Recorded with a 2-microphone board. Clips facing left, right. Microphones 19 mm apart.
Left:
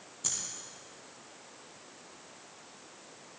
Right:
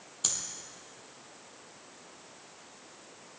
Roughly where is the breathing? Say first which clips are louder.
Right 3 dB; right.